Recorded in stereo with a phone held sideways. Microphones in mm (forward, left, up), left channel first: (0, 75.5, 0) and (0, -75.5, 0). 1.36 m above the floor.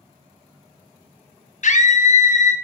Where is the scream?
55° left (ahead or behind), 0.5 m.